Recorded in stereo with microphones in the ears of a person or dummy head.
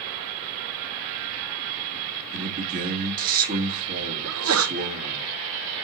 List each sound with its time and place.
2.3 s a man speaking: 45° right (ahead or behind), 2 m
4.2 s a sneeze: 80° right, 0.6 m